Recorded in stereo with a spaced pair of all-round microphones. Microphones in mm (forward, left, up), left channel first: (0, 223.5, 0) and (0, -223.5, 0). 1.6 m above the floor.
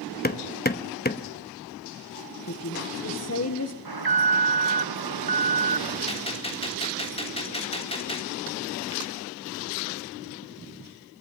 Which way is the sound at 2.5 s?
35° left (ahead or behind).